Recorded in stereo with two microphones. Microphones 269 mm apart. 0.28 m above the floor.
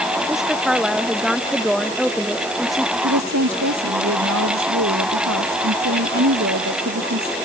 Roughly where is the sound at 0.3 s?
Centre.